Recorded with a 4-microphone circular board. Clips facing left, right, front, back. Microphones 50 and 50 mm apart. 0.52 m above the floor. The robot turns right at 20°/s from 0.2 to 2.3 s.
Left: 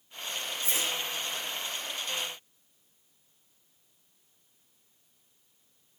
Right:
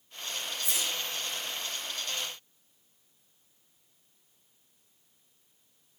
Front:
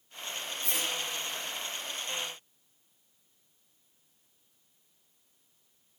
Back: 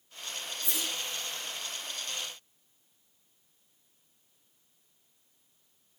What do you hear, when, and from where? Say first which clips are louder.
0.6 s a whoosh: left 2 dB, front 2 dB; 30° left, 0.9 m; by 1.0 s 40° left, 0.9 m